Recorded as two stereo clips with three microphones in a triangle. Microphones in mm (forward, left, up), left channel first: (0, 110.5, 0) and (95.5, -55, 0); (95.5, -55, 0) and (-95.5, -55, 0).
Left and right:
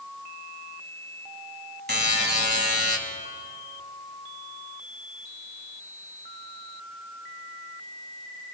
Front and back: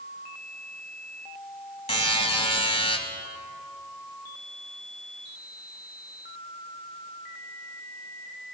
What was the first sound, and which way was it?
A buzzer, 55° right.